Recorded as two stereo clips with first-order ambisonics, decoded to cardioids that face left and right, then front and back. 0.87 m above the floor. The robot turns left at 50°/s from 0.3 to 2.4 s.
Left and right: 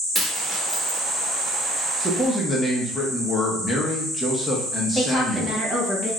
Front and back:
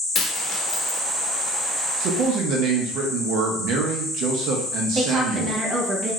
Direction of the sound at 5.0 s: 160° left.